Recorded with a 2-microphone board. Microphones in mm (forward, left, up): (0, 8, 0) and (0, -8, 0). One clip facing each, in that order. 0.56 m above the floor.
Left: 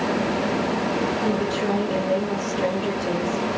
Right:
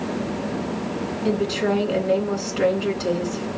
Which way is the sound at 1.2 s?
65° right (ahead or behind).